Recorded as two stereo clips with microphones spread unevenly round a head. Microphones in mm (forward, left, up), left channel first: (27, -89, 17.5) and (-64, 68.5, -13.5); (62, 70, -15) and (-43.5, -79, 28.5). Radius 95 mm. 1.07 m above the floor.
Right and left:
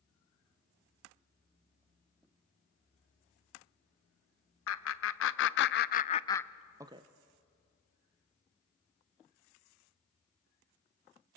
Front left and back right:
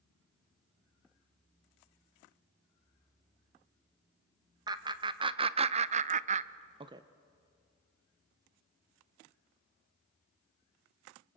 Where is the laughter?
50° right, 1.2 m; by 7.0 s 160° left, 0.7 m.